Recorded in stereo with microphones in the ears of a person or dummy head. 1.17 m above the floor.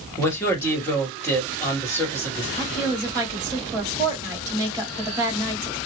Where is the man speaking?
15° left (ahead or behind), 1.4 m.